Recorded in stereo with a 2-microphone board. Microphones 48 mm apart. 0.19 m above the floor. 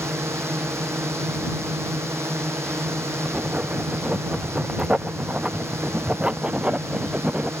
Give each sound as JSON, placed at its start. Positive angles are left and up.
{"t": 0.0, "sound": "a drone", "side_deg": -70}
{"t": 3.2, "sound": "writing", "side_deg": -20}